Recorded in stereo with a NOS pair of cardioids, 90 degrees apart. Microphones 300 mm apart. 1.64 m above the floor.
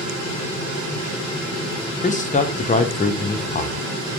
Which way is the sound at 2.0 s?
25° left.